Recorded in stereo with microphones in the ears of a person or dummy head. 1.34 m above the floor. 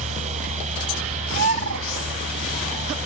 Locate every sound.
0.0 s a fan: 35° right (ahead or behind)
1.3 s a bird: 70° right (ahead or behind)